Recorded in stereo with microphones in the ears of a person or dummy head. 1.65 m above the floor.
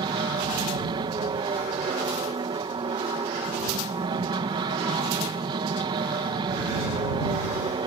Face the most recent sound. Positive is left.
turn(degrees=-30)  # may be behind; listen again after turning